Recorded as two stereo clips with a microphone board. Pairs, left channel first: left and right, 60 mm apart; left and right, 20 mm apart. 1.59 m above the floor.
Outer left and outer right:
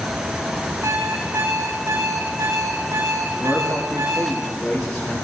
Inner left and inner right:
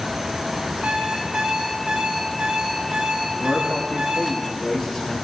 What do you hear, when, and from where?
0.8 s an alarm clock: 70° right (ahead or behind), 8 m
3.3 s a man speaking: centre (ahead or behind), 4 m